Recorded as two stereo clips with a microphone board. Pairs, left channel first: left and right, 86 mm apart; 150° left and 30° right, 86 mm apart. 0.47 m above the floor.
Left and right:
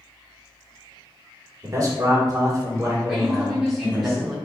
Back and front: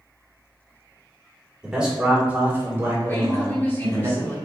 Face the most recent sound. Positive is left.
turn(degrees=180)